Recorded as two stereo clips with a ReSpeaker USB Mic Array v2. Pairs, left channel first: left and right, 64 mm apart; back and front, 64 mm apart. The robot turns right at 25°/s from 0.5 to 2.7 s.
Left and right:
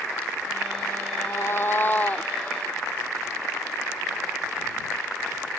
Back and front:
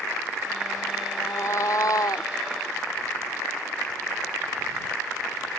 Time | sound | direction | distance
1.1 | a cat meowing | 130° left | ?